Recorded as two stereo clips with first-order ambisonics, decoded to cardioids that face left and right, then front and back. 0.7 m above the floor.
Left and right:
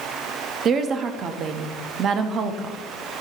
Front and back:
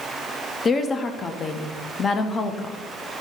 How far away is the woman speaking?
About 0.7 m.